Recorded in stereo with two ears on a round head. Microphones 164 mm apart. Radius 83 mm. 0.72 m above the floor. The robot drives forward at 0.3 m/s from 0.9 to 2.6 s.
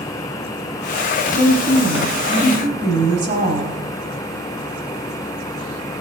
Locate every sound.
1.3 s a woman speaking: 35° right (ahead or behind), 5 m